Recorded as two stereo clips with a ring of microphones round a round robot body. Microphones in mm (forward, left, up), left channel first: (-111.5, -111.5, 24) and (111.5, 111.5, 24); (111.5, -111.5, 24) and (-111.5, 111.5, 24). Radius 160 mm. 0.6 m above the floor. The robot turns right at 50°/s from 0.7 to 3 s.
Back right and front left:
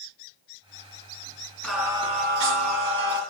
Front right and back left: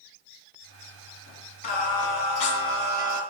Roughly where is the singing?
Ahead right.